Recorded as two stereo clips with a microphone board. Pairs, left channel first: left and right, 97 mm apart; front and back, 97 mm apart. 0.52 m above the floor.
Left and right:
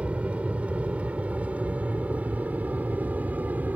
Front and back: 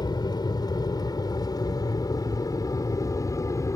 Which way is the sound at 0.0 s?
15° right.